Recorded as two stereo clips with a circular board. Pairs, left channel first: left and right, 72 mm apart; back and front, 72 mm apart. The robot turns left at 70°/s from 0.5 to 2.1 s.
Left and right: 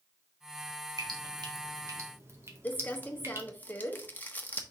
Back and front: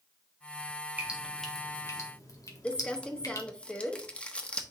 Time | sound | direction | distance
1.0 | dripping | 65° right | 1.7 m
2.6 | crumpling | 125° left | 1.1 m